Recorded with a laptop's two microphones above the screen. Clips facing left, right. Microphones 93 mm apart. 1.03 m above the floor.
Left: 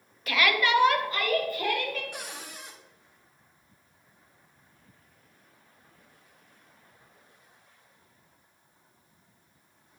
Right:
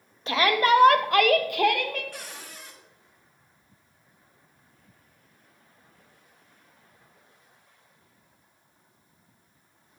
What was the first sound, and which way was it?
A shout, 25° right (ahead or behind).